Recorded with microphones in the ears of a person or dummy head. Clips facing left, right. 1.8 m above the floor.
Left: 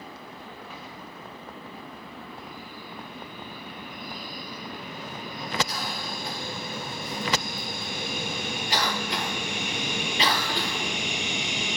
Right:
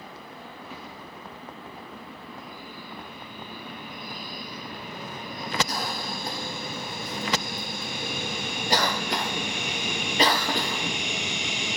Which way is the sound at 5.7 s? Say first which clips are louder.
Right 2 dB; 40° right (ahead or behind).